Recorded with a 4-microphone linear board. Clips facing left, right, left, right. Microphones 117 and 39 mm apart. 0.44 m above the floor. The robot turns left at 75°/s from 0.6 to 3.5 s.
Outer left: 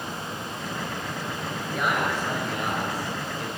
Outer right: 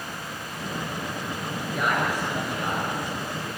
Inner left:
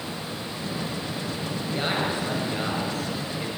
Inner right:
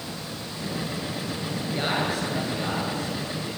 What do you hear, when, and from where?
1.7 s a man speaking: 170° right, 8.5 m; by 3.5 s 55° left, 8.5 m